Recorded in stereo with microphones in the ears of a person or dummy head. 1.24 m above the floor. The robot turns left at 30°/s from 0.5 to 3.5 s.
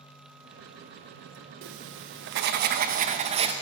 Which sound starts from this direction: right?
Writing, at 1.6 s.